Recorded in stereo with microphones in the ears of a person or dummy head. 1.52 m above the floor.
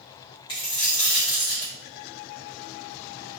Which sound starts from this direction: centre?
A dropped coin, at 0.5 s.